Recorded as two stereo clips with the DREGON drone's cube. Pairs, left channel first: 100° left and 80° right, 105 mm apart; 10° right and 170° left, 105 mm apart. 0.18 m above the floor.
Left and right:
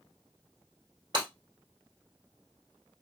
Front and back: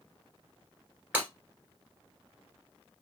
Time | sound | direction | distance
1.1 | breaking glass | 115° right | 1.7 m